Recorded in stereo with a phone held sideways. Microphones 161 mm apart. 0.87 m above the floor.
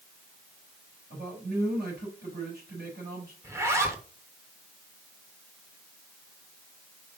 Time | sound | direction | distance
1.1 | a man speaking | 75° right (ahead or behind) | 4.5 m
3.4 | a zipper | 15° right (ahead or behind) | 1.1 m